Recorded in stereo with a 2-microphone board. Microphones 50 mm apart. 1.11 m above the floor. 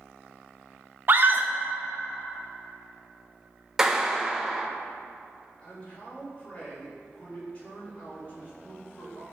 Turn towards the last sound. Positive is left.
turn(degrees=25)  # may be behind; listen again after turning